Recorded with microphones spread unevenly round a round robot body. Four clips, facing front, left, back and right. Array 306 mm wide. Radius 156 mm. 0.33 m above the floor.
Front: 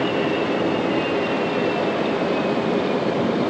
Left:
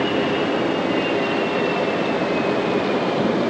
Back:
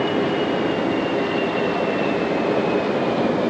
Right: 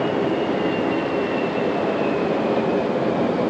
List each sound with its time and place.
Only background noise.